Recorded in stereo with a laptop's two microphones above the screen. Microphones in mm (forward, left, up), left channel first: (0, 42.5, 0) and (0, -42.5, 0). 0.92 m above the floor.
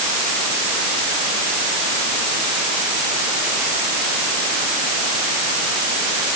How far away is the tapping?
I don't hear tapping.